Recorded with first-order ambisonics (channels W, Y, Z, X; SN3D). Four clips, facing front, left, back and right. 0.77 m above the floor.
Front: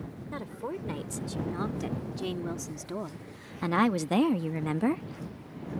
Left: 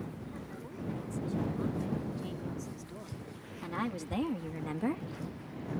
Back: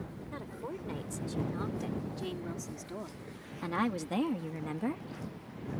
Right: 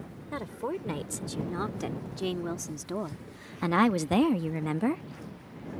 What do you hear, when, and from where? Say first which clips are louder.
0.3 s a woman speaking: right 10 dB, front 6 dB; 70° right; by 5.0 s 25° right